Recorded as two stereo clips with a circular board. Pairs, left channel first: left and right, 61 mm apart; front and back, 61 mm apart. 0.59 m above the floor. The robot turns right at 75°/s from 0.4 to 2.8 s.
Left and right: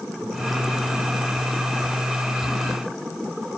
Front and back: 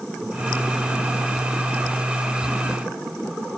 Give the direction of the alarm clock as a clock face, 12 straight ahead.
I don't hear an alarm clock.